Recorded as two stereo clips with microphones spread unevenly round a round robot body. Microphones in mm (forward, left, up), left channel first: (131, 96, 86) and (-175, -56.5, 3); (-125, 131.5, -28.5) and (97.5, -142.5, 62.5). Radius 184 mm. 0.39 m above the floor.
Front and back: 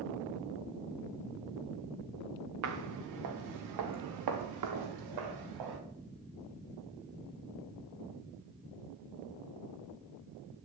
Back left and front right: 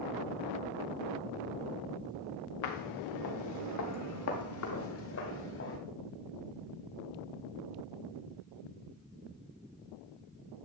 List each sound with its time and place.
2.6 s footsteps: 160° left, 2.5 m; by 5.8 s 170° right, 6 m